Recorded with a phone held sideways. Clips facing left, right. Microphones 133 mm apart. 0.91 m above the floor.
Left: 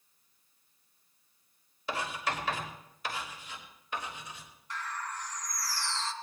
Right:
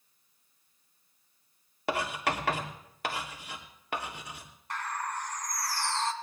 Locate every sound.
1.9 s writing: 65° right (ahead or behind), 3 m
4.7 s a bird: 55° right (ahead or behind), 1.7 m